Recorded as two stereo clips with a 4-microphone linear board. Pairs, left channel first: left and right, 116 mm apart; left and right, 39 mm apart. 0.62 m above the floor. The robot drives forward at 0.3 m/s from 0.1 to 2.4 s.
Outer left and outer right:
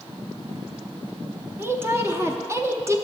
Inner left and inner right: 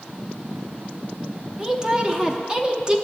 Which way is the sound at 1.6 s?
20° right (ahead or behind).